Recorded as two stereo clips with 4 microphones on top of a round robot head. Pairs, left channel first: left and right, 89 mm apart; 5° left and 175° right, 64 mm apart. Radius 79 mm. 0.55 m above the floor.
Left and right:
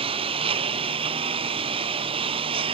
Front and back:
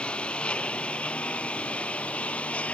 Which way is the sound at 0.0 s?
75° right.